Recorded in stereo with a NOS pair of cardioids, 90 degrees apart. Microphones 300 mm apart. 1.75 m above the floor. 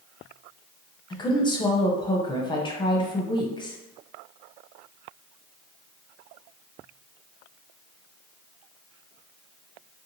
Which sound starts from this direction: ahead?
A woman speaking, at 1.1 s.